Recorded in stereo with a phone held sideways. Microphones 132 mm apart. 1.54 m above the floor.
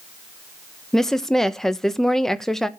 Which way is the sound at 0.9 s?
5° left (ahead or behind).